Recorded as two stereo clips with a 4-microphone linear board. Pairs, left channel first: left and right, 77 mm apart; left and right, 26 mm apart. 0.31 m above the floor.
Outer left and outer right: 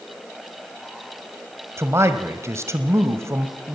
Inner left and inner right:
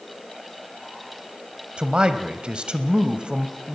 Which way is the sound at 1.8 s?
35° right (ahead or behind).